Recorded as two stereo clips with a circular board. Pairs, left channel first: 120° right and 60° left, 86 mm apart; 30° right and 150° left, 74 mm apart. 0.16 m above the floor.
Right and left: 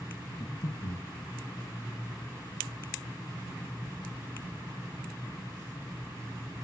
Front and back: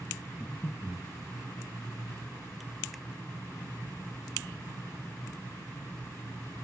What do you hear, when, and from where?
0.4 s breathing: 110° right, 2.5 m